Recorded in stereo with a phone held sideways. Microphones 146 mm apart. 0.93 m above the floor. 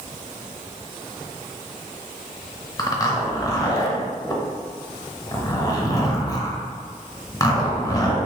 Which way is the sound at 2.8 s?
25° left (ahead or behind).